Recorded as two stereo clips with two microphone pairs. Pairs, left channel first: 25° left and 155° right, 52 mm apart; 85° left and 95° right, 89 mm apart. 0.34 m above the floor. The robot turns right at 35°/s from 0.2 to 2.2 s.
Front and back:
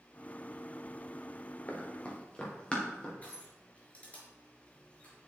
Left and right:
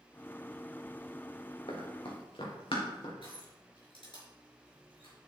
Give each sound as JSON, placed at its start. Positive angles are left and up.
{"t": 1.7, "sound": "running footsteps", "azimuth_deg": 85, "distance_m": 3.0}
{"t": 3.2, "sound": "crushing", "azimuth_deg": 85, "distance_m": 5.0}